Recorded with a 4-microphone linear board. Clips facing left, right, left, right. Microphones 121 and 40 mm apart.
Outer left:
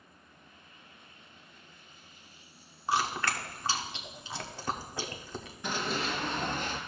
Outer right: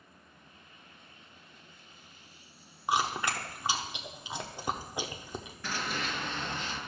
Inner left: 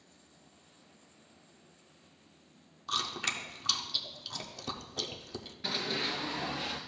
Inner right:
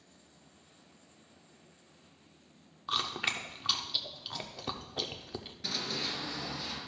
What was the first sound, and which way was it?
Chewing, 15° right (ahead or behind).